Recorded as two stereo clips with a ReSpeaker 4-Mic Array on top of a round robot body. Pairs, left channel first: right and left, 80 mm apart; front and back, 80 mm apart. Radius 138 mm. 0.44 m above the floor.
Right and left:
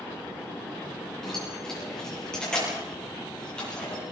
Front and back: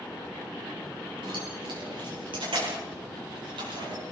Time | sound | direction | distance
1.2 | keys jangling | 175° right | 8.5 m